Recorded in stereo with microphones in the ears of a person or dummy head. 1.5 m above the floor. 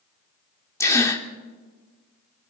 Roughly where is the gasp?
Centre.